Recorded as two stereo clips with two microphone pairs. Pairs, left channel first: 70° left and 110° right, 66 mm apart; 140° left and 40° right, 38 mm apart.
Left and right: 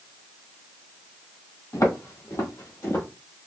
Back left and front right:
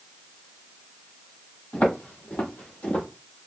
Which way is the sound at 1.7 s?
95° left.